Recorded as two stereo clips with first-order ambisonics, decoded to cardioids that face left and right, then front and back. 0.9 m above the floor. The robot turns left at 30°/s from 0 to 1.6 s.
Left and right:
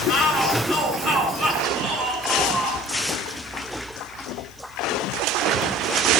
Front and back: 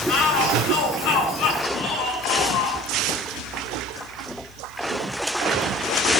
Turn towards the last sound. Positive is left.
turn(degrees=-30)